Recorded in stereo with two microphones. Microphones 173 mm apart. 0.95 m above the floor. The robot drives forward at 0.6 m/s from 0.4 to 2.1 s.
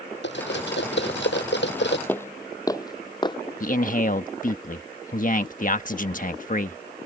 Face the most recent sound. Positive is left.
turn(degrees=50)  # may be behind; listen again after turning